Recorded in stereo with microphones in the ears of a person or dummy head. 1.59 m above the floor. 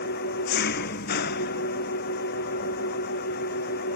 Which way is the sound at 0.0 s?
60° left (ahead or behind).